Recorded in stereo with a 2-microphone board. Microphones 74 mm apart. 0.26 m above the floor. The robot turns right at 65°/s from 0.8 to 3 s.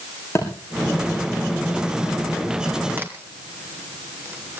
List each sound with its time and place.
0.3 s a thud: 40° left (ahead or behind), 8 m
3.0 s a crack: 25° right (ahead or behind), 2.5 m; by 4.6 s 30° right (ahead or behind), 2.5 m